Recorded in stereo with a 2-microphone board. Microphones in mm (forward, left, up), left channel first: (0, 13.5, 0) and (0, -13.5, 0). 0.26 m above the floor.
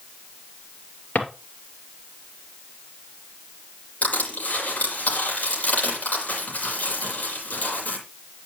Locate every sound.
1.1 s a drawer: 80° left, 2.5 m
4.0 s crushing: 65° left (ahead or behind), 7.5 m